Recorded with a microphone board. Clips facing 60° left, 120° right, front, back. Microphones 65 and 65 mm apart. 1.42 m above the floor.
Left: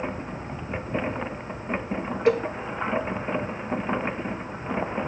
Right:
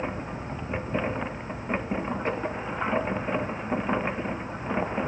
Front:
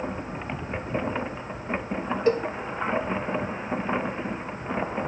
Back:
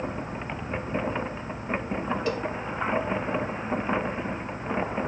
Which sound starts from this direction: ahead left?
A cowbell, at 2.3 s.